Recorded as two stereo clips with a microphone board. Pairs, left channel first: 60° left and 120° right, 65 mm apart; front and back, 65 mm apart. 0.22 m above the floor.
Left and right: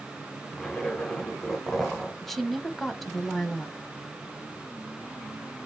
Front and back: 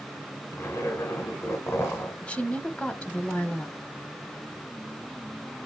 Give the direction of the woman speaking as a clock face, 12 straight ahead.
1 o'clock.